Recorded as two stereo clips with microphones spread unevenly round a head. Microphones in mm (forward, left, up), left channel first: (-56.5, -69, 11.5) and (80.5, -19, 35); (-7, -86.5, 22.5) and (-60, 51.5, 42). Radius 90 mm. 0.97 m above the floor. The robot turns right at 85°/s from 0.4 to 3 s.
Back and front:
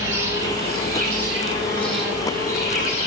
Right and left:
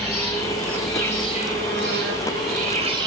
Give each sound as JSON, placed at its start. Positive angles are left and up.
{"t": 0.0, "sound": "an insect", "azimuth_deg": -50, "distance_m": 4.5}